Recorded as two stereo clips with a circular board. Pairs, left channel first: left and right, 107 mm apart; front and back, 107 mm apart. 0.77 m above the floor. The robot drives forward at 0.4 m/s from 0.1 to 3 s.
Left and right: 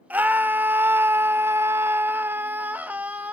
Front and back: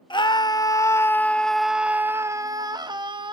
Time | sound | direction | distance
0.1 | a scream | 20° right | 0.8 m